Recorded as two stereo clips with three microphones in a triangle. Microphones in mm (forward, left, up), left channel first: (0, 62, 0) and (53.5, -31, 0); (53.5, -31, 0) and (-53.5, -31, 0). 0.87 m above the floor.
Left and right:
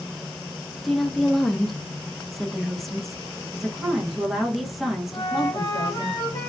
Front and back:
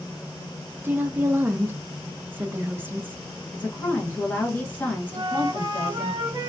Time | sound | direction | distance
0.8 | a woman speaking | 155° right | 0.5 m
3.5 | a woman speaking | 20° left | 0.9 m
5.1 | a flute | 160° left | 1.2 m